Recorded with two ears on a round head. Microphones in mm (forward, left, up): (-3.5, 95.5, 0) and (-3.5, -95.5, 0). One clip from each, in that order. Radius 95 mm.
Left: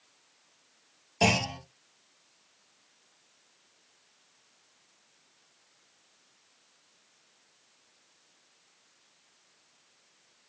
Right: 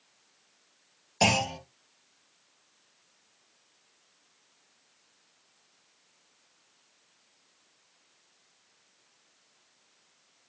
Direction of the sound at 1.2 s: 35° right (ahead or behind).